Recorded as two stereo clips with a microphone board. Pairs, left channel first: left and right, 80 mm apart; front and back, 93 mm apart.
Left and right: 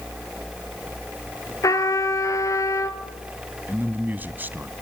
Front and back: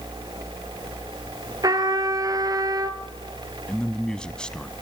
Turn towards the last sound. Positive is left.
turn(degrees=-70)